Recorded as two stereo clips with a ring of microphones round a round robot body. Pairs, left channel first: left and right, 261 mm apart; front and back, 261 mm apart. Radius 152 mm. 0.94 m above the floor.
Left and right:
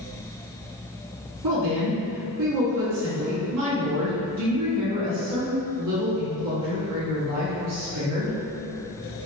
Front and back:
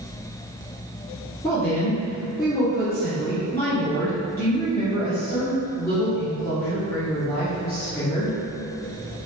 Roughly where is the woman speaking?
Right.